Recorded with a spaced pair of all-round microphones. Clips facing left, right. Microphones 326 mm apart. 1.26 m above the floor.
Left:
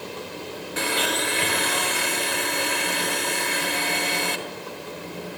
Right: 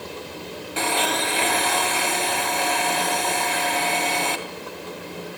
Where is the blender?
20° left (ahead or behind), 2.5 m.